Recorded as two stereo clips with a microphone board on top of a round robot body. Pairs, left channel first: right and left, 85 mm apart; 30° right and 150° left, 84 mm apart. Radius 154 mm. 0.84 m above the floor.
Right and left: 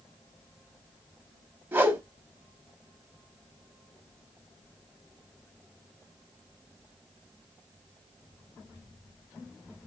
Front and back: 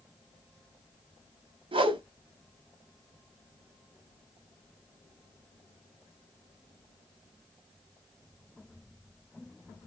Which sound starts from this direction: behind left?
A whoosh, at 1.7 s.